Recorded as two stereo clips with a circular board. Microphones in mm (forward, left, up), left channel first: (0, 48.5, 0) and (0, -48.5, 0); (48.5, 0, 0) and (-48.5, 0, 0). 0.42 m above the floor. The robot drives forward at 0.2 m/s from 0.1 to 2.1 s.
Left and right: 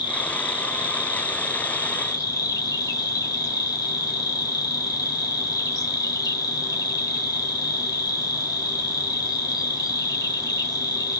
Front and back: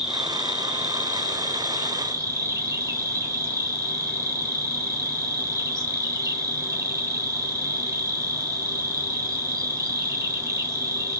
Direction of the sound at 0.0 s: 100° left.